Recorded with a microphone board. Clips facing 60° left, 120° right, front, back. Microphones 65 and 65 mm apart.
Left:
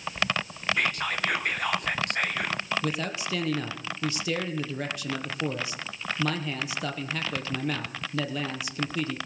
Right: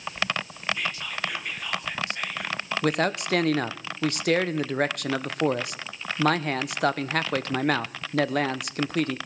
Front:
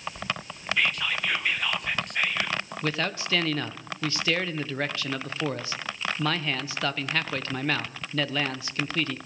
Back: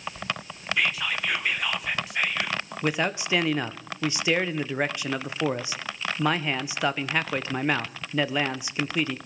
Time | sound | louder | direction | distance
0.8 | whispering | left 3 dB, even | 95° left | 1.2 m
2.8 | a man speaking | right 6 dB, back 4 dB | 110° right | 0.8 m